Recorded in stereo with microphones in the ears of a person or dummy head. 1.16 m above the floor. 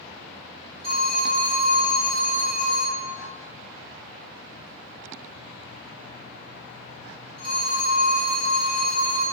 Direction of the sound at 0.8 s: 50° right (ahead or behind).